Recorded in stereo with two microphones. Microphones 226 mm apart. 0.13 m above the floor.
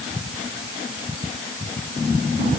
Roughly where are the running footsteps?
No running footsteps in this recording.